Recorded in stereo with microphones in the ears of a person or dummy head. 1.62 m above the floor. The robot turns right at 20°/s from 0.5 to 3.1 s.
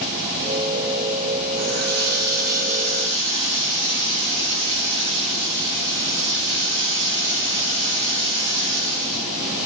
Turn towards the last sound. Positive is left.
turn(degrees=-35)